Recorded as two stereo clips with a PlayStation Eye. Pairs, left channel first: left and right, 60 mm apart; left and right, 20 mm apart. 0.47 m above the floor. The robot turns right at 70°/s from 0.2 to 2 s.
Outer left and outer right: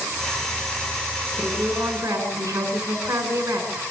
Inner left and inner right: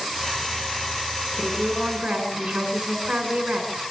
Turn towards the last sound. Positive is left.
turn(degrees=-125)